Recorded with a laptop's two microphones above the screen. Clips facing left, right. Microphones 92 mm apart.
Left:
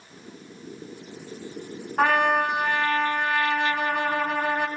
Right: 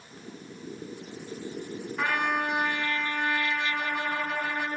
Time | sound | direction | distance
2.0 | a trumpet | 55° left (ahead or behind) | 2.5 m